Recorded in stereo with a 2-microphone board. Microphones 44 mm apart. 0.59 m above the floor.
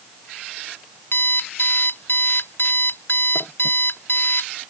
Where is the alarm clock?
65° left (ahead or behind).